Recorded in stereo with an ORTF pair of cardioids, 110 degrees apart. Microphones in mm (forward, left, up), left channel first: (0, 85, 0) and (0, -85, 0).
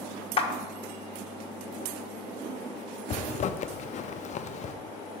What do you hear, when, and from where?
0.4 s a clap: 35° left, 1.4 m
3.1 s a zipper: 45° left, 0.5 m